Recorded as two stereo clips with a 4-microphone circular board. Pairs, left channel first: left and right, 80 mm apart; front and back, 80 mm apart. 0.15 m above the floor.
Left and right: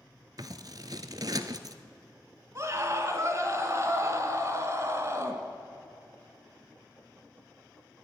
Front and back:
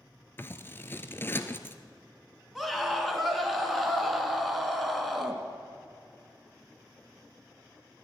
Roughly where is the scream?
Right.